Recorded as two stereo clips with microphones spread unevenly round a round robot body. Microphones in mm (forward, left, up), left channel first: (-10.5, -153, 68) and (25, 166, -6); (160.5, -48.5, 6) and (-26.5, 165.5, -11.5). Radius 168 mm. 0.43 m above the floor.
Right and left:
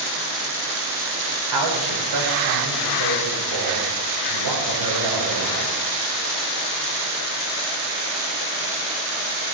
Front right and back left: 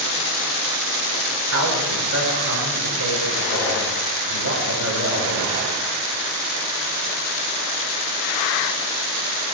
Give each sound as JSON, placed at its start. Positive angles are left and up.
{"t": 1.5, "sound": "a man speaking", "azimuth_deg": 95, "distance_m": 6.0}